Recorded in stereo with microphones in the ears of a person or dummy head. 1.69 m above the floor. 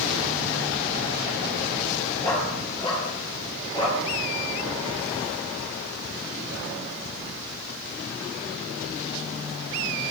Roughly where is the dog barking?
Left.